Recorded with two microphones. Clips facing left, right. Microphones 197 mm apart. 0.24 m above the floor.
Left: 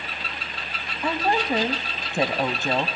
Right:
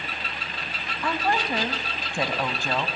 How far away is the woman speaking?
About 1.2 m.